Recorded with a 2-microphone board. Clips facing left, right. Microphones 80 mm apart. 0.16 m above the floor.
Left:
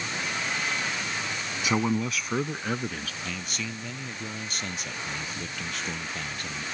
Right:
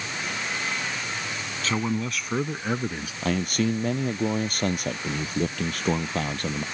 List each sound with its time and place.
1.6 s a man speaking: 15° left (ahead or behind); by 3.1 s 15° right (ahead or behind)
3.2 s a man speaking: 50° right (ahead or behind)